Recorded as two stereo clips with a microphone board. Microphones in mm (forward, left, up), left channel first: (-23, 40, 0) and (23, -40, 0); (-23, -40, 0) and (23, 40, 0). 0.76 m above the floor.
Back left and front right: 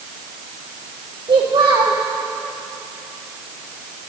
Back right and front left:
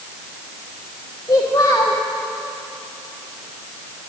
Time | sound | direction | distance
1.3 | a child speaking | 75° right | 1.0 m